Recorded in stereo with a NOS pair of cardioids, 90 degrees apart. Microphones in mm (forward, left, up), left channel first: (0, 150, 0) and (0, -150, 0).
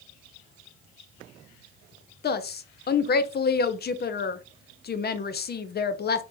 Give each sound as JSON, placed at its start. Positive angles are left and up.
{"t": 2.2, "sound": "a woman speaking", "azimuth_deg": 35, "distance_m": 0.6}